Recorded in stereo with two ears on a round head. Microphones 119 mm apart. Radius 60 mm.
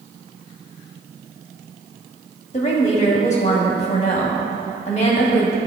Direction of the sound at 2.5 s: 50° left (ahead or behind).